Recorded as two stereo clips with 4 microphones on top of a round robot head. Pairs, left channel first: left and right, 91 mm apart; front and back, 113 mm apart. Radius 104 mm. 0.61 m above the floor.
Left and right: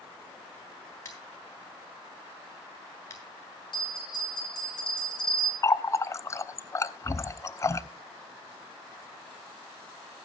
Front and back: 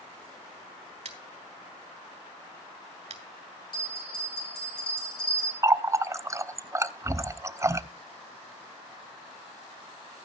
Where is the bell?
50° left, 8 m.